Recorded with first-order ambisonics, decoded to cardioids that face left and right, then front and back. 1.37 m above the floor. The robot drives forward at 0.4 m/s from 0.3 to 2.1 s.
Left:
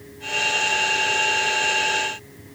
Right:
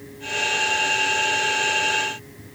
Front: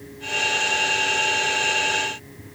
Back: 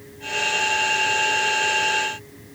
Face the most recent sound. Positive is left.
No sound to turn to.